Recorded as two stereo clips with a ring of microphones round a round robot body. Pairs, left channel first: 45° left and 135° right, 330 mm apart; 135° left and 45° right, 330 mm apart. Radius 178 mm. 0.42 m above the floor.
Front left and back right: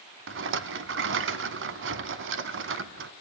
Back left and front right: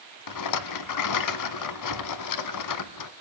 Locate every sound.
0.3 s a rattle: 170° left, 0.9 m